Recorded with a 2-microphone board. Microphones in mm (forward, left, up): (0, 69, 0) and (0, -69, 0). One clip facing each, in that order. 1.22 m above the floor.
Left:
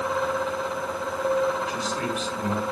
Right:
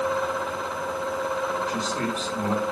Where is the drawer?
No drawer in this recording.